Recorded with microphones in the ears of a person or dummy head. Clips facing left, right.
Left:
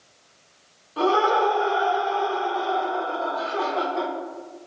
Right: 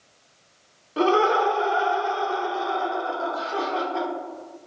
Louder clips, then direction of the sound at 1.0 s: Right 1 dB; 35° right (ahead or behind).